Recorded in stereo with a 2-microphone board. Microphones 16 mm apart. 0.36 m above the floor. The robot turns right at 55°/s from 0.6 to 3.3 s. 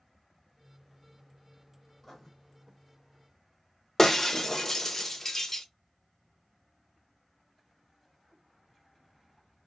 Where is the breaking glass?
20° left (ahead or behind), 0.5 m.